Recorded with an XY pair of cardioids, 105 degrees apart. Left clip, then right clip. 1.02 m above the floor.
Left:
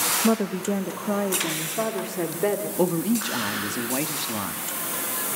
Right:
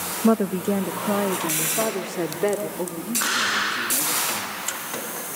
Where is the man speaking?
50° left, 2 m.